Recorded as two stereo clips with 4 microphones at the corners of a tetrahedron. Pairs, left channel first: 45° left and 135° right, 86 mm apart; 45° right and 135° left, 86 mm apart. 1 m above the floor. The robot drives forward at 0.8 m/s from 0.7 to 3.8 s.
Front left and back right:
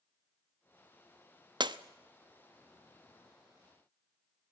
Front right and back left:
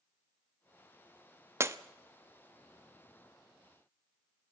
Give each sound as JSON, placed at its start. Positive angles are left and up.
{"t": 1.6, "sound": "breaking glass", "azimuth_deg": -165, "distance_m": 0.7}